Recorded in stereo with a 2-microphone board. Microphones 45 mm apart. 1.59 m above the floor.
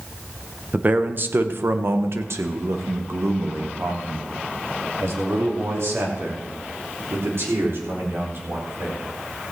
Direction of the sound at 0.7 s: 35° right (ahead or behind).